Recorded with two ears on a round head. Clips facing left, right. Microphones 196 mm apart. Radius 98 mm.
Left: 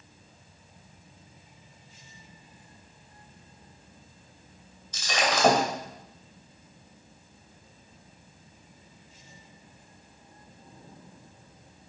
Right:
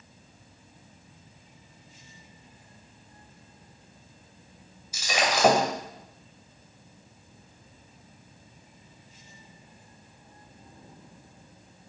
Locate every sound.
4.9 s breaking glass: 10° right (ahead or behind), 2 m